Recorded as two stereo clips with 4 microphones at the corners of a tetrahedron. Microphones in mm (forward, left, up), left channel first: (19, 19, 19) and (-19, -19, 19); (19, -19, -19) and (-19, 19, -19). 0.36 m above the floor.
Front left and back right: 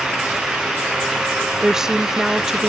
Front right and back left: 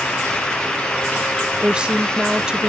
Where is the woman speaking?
165° left.